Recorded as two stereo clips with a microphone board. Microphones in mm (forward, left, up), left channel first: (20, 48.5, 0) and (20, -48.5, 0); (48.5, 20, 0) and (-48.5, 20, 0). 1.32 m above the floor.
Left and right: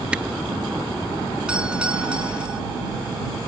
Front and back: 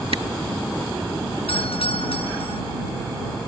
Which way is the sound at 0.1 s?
165° right.